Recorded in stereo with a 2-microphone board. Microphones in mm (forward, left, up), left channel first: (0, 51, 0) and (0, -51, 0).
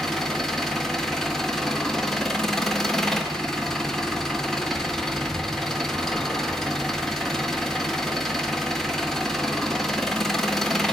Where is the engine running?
5° left (ahead or behind), 1.8 m.